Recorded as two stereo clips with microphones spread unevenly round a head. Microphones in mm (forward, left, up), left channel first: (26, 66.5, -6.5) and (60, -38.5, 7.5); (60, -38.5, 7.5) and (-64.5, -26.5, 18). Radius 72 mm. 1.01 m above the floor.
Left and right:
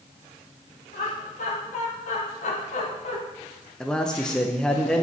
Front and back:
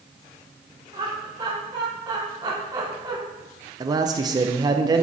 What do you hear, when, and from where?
0.9 s laughter: 110° left, 4 m
3.8 s a man speaking: 170° left, 0.7 m